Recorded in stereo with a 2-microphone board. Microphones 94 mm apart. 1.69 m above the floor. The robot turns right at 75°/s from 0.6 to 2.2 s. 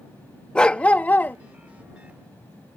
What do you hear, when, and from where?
0.6 s a dog barking: 10° left (ahead or behind); by 1.4 s 20° left (ahead or behind)